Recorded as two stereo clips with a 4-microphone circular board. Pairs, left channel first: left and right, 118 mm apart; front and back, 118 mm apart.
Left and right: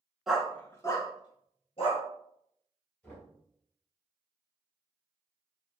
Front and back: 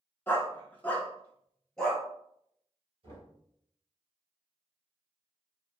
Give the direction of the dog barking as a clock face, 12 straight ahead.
12 o'clock.